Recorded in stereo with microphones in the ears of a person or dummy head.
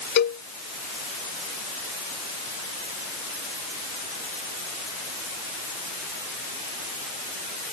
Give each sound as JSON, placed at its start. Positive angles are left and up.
{"t": 0.2, "sound": "a cowbell", "side_deg": 55}